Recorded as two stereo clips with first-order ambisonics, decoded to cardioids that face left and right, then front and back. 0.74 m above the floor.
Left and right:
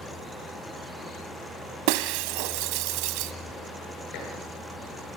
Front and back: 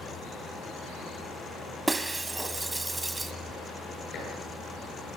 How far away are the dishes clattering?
About 8.5 m.